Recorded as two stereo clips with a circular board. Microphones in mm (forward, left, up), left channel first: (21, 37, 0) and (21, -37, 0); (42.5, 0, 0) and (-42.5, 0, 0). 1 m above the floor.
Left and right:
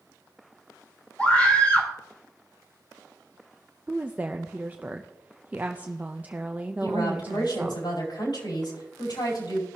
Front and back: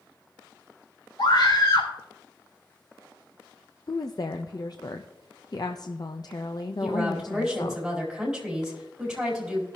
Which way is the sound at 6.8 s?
95° left.